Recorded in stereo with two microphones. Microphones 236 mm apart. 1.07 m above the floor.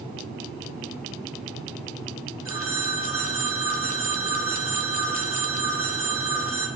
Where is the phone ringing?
55° left (ahead or behind), 1.2 m.